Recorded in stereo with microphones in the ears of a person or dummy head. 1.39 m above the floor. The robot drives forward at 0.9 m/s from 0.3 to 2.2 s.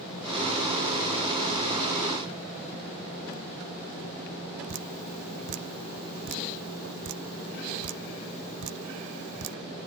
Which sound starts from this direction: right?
Dripping, at 4.7 s.